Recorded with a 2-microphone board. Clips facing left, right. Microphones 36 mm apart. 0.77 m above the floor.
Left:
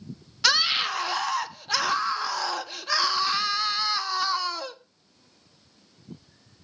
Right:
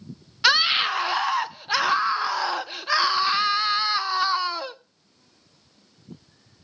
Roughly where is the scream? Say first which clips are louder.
Right 4 dB; centre.